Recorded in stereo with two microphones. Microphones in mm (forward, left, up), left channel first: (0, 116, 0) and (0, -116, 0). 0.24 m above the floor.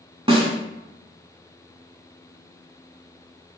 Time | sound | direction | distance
0.3 | a snare drum | 25° right (ahead or behind) | 0.7 m